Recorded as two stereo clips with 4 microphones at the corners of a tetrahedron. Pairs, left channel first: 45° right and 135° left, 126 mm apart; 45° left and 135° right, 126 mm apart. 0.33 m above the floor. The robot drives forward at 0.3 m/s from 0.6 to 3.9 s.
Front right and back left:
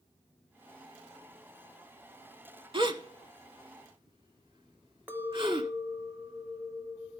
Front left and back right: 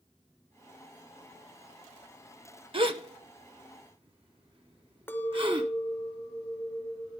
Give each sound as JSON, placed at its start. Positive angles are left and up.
{"t": 2.7, "sound": "a gasp", "azimuth_deg": 180, "distance_m": 0.6}
{"t": 5.1, "sound": "a clink", "azimuth_deg": 85, "distance_m": 0.8}